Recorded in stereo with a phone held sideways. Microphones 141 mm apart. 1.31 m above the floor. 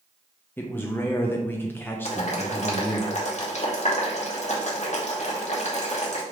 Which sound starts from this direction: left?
Boiling, at 2.0 s.